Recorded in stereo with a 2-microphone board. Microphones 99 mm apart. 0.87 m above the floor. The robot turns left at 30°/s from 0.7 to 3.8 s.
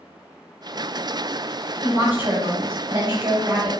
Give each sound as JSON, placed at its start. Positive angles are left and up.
{"t": 1.8, "sound": "a woman speaking", "azimuth_deg": -90, "distance_m": 2.0}